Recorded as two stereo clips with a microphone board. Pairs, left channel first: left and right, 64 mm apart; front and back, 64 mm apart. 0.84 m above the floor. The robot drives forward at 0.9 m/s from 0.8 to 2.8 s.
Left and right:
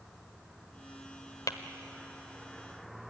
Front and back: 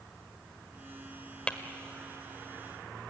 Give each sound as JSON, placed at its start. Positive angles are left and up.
{"t": 1.5, "sound": "tapping", "azimuth_deg": 70, "distance_m": 1.4}